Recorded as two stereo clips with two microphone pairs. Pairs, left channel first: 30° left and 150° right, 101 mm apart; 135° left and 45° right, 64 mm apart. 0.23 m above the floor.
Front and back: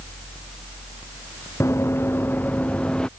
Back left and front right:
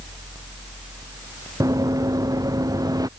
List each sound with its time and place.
1.6 s running footsteps: 30° right; by 3.1 s 50° right